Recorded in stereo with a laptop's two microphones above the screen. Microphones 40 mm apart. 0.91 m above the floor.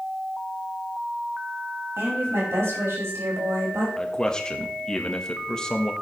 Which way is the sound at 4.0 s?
20° left (ahead or behind).